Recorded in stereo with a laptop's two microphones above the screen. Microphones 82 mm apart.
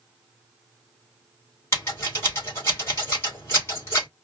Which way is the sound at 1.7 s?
30° left (ahead or behind).